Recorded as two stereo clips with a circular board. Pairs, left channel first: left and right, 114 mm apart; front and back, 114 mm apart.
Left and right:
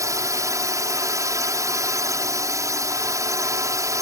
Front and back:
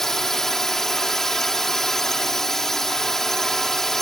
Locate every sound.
0.0 s a drone: 85° right